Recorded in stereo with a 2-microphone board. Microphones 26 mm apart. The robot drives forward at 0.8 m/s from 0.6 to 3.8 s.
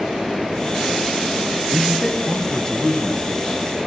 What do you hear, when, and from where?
1.7 s a man speaking: 25° left (ahead or behind), 1.1 m; by 3.6 s 15° left (ahead or behind), 1.7 m